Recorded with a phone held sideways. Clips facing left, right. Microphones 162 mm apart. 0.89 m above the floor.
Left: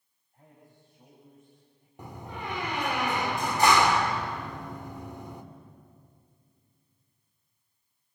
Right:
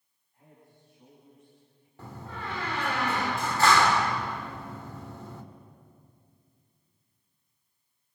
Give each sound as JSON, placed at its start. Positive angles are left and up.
{"t": 0.3, "sound": "a man speaking", "side_deg": 45, "distance_m": 7.5}
{"t": 2.0, "sound": "a door slam", "side_deg": 15, "distance_m": 1.9}